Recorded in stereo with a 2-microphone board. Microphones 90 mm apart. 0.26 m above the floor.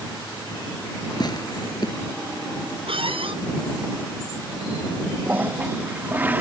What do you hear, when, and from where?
1.2 s tearing paper: 50° left (ahead or behind)
2.9 s a squeak: 75° right (ahead or behind)
5.3 s a toilet flushing: 20° right (ahead or behind)